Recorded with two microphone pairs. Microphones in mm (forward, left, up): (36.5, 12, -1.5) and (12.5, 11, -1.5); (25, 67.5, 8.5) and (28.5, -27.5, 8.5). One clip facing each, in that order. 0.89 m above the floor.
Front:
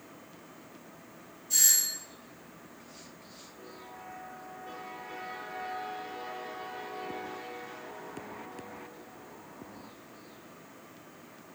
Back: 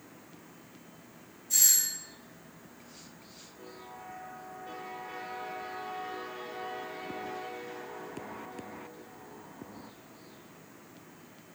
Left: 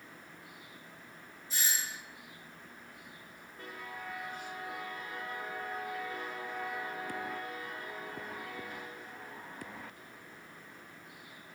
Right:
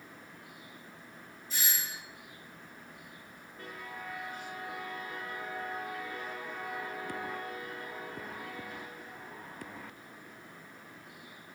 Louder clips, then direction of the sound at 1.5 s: Even, left 1 dB; 40° left.